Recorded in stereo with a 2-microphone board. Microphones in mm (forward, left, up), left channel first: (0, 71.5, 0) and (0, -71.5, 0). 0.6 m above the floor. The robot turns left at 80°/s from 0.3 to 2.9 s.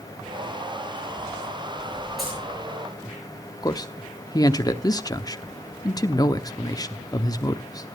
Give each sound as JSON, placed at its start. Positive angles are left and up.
{"t": 2.2, "sound": "keys jangling", "side_deg": 0, "distance_m": 9.0}
{"t": 3.6, "sound": "a man speaking", "side_deg": 25, "distance_m": 0.9}